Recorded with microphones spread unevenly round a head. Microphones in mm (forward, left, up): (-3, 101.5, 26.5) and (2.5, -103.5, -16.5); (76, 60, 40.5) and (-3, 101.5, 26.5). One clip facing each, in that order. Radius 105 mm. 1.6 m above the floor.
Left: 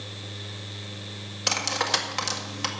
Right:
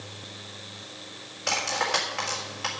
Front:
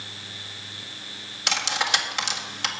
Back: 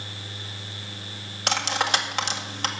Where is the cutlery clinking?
105° left, 1.7 m.